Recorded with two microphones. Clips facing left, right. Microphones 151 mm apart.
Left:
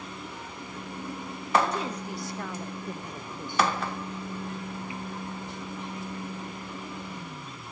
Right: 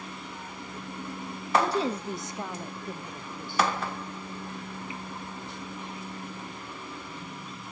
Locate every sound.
1.6 s a woman speaking: 35° right (ahead or behind), 1.7 m; by 3.8 s 30° left (ahead or behind), 1.5 m